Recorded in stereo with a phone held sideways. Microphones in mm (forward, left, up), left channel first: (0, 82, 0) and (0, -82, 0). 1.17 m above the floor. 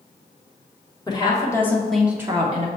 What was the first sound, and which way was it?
A woman speaking, 25° left (ahead or behind).